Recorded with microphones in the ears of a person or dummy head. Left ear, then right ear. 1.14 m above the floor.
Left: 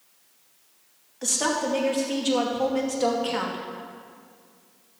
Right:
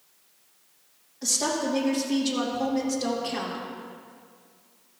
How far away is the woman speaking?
About 2.5 m.